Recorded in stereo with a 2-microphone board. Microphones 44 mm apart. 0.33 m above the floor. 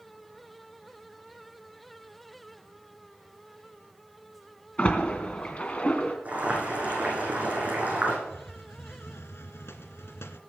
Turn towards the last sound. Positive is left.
turn(degrees=80)